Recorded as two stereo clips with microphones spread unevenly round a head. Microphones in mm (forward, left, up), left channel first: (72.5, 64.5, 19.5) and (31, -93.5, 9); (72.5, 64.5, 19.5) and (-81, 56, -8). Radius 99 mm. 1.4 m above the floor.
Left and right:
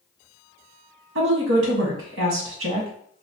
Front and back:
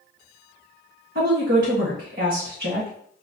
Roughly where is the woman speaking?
Behind right.